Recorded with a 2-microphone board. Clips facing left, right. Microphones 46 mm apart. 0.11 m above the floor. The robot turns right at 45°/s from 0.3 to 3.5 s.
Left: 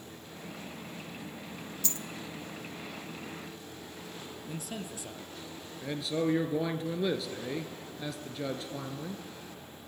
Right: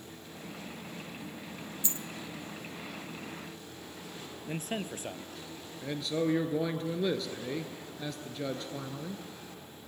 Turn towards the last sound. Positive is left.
turn(degrees=5)  # may be behind; listen again after turning